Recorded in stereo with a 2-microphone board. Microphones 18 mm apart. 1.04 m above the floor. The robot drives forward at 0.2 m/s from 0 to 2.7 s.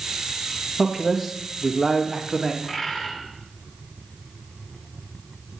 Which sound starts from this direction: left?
A bird, at 2.6 s.